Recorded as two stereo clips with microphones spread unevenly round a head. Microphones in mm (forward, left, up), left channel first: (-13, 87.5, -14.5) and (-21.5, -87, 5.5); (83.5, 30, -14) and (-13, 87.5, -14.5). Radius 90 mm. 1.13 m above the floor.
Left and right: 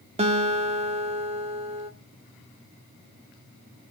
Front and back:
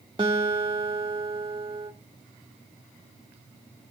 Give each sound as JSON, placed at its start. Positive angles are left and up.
{"t": 0.2, "sound": "a guitar", "azimuth_deg": -145, "distance_m": 1.6}